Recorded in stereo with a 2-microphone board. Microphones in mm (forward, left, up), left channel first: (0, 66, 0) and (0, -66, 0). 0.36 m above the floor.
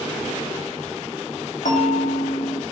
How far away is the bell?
About 3 m.